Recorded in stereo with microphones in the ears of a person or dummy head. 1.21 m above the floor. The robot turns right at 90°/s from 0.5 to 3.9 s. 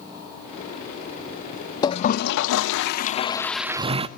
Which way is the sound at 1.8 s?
20° left.